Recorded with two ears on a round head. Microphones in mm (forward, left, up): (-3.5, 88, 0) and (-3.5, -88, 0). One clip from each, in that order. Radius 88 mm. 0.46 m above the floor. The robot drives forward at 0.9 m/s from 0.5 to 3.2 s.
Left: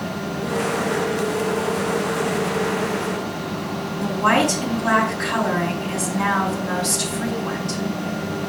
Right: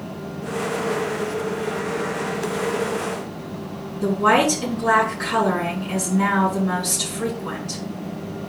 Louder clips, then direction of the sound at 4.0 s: Right 1 dB; 25° left (ahead or behind).